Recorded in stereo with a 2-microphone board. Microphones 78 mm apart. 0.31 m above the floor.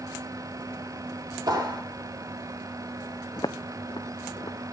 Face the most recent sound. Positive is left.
turn(degrees=70)  # may be behind; listen again after turning